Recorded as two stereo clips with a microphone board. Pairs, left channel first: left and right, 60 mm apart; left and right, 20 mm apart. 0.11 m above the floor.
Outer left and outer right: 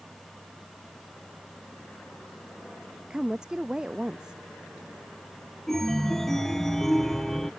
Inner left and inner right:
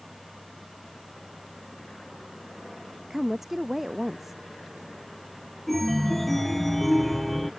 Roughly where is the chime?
Centre.